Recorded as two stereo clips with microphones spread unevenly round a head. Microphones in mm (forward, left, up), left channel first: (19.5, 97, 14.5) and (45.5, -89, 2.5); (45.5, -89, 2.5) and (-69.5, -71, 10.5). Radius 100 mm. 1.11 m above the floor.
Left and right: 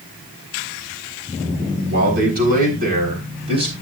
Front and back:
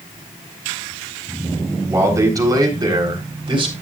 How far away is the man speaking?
About 4 m.